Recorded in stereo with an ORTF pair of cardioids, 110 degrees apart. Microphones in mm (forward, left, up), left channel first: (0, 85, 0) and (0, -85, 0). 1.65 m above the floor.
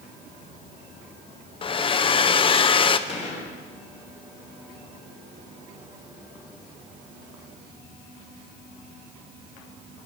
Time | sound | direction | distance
1.6 | a hair dryer | 35° left | 0.9 m
3.1 | a gunshot | 40° left | 5 m